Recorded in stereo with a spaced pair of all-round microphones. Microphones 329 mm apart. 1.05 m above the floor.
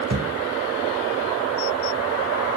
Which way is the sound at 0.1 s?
55° right (ahead or behind).